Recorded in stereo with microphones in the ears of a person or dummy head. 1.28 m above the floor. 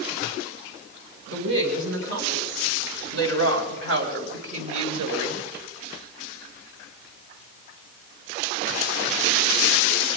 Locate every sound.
1.3 s a woman speaking: 75° right (ahead or behind), 5 m; by 5.4 s 85° right, 2.5 m